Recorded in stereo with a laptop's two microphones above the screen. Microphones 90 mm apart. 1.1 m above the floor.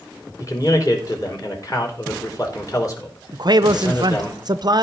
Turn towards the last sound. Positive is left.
turn(degrees=-50)  # may be behind; listen again after turning